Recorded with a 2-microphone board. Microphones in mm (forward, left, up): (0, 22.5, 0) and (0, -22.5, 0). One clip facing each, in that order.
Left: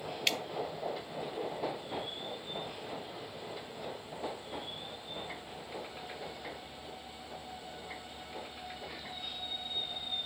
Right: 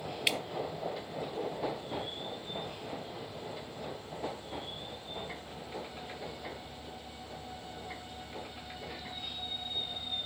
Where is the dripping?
10° right (ahead or behind), 0.6 m.